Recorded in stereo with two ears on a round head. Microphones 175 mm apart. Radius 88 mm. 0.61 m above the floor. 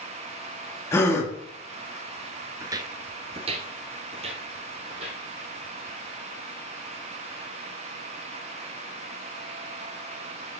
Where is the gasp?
15° left (ahead or behind), 1.1 m.